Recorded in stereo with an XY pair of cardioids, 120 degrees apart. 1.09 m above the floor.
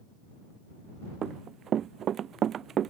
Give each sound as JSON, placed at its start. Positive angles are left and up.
{"t": 1.2, "sound": "running footsteps", "azimuth_deg": -50}